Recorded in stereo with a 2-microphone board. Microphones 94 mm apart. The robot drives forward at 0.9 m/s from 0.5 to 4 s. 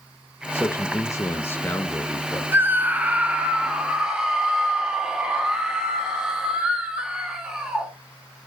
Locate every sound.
0.5 s a man speaking: 25° left (ahead or behind), 0.9 m; by 2.4 s 15° left (ahead or behind), 1.5 m
2.5 s a scream: 20° right (ahead or behind), 0.7 m; by 7.9 s 10° right (ahead or behind), 1.7 m